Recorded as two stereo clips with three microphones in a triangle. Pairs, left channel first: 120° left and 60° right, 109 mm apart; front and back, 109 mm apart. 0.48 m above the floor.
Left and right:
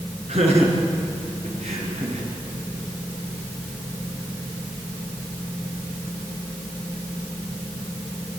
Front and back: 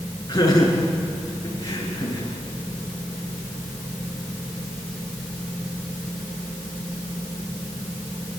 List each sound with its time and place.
0.3 s laughter: 55° right, 8 m